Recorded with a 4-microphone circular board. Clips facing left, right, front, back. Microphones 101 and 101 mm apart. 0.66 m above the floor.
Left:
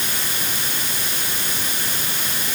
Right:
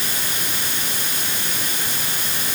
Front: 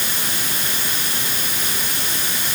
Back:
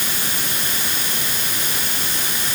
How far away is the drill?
I don't hear a drill.